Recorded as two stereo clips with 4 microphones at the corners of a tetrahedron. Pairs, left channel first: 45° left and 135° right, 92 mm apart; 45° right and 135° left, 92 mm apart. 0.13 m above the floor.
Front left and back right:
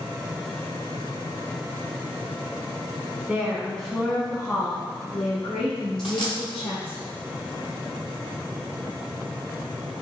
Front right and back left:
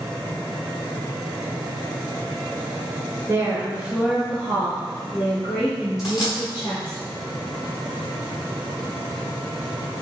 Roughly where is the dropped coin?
Ahead.